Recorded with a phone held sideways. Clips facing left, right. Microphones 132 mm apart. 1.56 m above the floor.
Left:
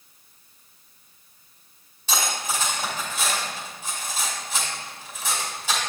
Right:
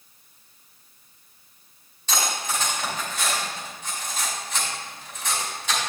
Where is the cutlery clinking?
5° left (ahead or behind), 3 m.